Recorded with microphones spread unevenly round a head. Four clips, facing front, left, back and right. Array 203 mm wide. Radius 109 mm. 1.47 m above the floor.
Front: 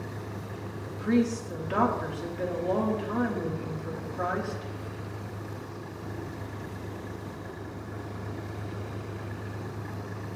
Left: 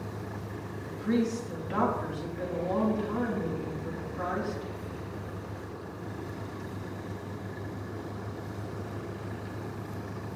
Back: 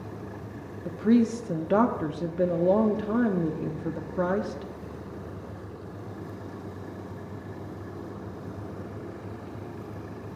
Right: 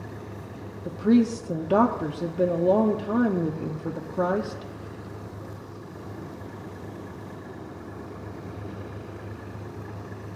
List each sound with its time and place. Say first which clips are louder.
0.8 s a woman speaking: right 8 dB, back 4 dB; 120° right, 0.8 m